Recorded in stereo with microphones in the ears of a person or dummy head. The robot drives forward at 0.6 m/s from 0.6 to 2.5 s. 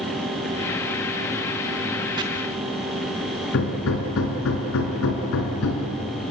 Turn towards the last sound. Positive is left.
turn(degrees=70)  # may be behind; listen again after turning